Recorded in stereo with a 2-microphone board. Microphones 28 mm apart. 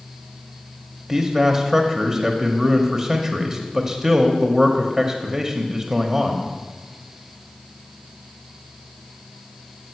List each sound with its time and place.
1.1 s a man speaking: 15° right (ahead or behind), 0.9 m